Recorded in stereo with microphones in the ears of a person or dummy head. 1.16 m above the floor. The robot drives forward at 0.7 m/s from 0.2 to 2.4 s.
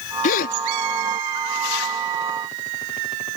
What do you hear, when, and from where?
0.2 s a gasp: 45° left (ahead or behind)